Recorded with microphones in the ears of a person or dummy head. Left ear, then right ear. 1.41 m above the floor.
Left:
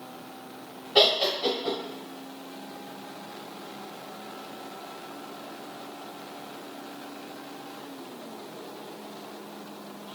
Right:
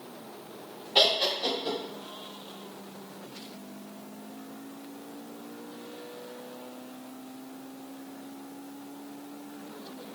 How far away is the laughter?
About 1.0 m.